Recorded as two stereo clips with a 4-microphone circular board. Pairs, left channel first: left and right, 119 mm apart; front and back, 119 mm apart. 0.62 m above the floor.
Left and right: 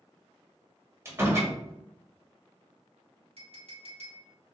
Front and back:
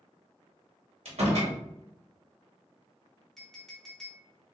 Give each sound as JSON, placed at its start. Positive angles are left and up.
{"t": 1.1, "sound": "a door slam", "azimuth_deg": -155, "distance_m": 1.6}
{"t": 3.4, "sound": "a clink", "azimuth_deg": -90, "distance_m": 1.2}